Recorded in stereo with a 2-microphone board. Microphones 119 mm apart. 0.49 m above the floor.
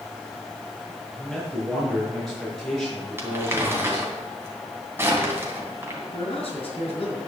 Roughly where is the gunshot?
No gunshot in this recording.